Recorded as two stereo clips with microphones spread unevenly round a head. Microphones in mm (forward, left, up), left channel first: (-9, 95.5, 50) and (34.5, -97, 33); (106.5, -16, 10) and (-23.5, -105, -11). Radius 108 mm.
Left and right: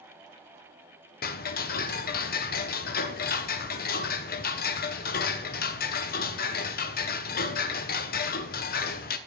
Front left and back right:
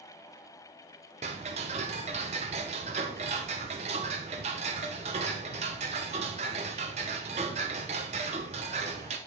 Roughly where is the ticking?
Behind left.